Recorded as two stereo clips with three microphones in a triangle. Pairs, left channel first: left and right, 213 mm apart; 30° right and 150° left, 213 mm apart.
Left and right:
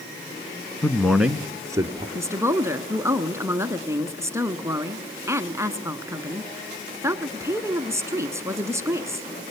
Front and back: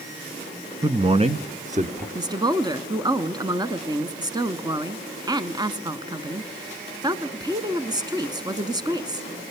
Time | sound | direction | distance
0.8 | a man speaking | 145° left | 1.1 m
2.1 | a woman speaking | 155° right | 1.3 m